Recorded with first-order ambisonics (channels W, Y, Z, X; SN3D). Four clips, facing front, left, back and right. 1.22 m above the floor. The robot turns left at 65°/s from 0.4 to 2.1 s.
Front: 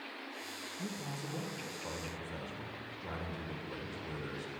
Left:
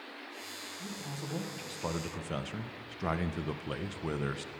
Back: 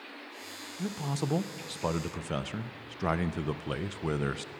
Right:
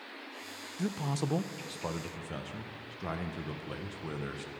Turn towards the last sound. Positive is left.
turn(degrees=160)